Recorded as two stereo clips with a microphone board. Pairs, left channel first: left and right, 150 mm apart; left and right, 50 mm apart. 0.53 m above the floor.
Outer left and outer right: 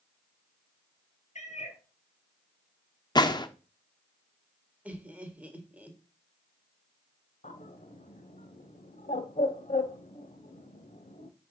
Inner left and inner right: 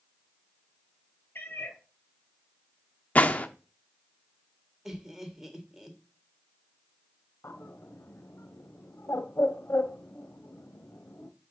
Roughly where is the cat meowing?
Left.